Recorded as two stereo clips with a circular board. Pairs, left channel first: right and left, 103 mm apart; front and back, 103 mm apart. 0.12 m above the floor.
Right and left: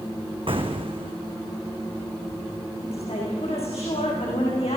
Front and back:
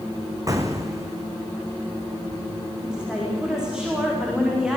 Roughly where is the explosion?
Behind left.